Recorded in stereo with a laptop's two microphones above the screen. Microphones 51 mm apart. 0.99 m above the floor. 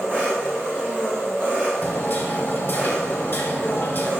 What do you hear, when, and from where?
0.0 s an engine running: 35° right (ahead or behind), 1.3 m
1.8 s hammering: 40° left (ahead or behind), 0.9 m